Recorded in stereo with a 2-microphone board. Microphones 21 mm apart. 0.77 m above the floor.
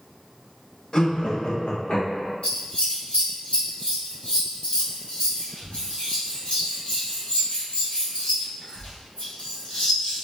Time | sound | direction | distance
0.9 | laughter | 40° left (ahead or behind) | 0.7 m
2.4 | scissors | 75° left (ahead or behind) | 1.7 m